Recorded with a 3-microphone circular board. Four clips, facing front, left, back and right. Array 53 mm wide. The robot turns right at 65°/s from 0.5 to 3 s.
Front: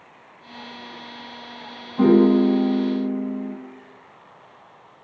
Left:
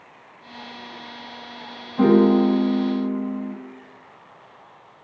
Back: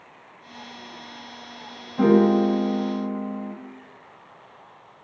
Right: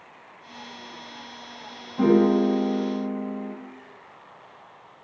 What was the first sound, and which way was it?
A piano, 115° left.